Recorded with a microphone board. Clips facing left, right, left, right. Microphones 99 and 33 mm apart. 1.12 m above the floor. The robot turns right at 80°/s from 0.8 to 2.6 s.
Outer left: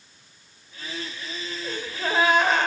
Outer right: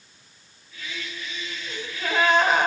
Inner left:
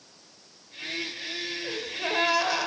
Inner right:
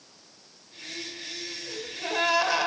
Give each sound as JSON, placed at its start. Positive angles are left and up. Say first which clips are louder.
{"t": 1.6, "sound": "a gasp", "louder": "outer left 2 dB, inner left 2 dB", "azimuth_deg": 115, "distance_m": 2.5}